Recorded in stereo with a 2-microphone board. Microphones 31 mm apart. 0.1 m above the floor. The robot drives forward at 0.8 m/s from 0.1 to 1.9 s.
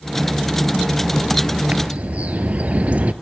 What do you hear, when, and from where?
1.7 s a bird: 50° right (ahead or behind), 0.6 m